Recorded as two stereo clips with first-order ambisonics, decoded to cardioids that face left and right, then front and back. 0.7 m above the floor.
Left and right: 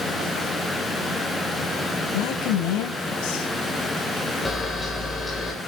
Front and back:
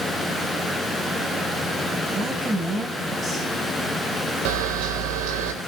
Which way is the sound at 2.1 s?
100° left.